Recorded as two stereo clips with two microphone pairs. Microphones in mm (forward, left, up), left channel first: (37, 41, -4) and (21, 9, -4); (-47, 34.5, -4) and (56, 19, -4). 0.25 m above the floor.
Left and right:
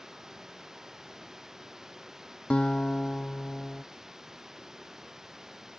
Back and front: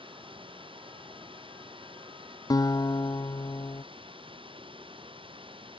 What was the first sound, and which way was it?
Running water, 40° right.